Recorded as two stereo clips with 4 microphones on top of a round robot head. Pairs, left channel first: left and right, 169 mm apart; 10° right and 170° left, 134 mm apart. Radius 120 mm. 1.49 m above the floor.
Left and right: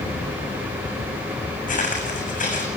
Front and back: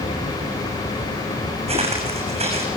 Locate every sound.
1.7 s footsteps: 130° left, 7.5 m